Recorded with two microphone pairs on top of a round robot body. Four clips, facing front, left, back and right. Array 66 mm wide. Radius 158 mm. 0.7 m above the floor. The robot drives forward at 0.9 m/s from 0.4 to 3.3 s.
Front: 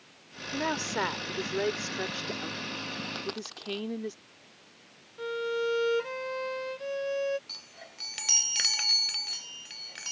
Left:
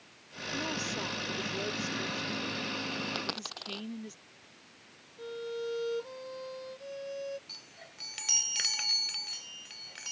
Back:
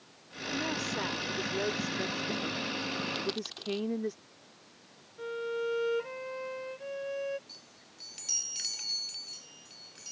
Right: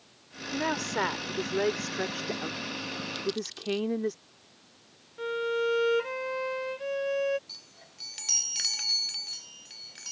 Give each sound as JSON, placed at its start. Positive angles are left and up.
{"t": 0.5, "sound": "a woman speaking", "azimuth_deg": -50}
{"t": 3.1, "sound": "a dropped coin", "azimuth_deg": 80}
{"t": 5.2, "sound": "a violin", "azimuth_deg": -60}
{"t": 7.5, "sound": "a chime", "azimuth_deg": 5}